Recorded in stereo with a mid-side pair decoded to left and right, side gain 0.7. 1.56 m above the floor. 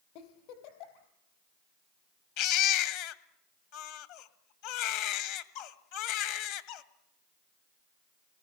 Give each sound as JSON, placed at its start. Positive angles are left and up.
{"t": 0.1, "sound": "a giggle", "azimuth_deg": 70, "distance_m": 4.5}
{"t": 2.4, "sound": "a baby crying", "azimuth_deg": 70, "distance_m": 1.9}